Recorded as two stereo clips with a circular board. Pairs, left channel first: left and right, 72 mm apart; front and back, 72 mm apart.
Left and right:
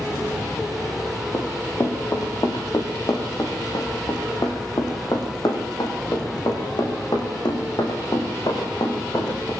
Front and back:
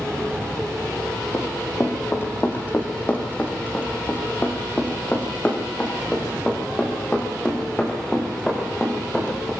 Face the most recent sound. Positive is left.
turn(degrees=75)